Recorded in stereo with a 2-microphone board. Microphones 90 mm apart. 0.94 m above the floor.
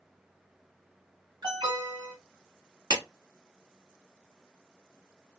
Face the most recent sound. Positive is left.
turn(degrees=-45)  # may be behind; listen again after turning